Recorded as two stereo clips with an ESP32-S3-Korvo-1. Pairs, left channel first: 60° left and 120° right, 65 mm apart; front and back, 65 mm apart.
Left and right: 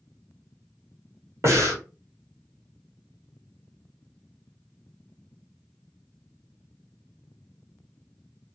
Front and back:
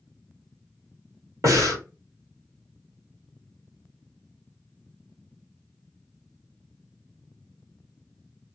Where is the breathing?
150° right, 1.4 m.